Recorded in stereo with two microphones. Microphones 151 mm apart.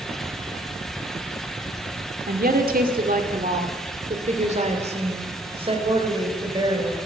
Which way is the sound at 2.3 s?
75° right (ahead or behind).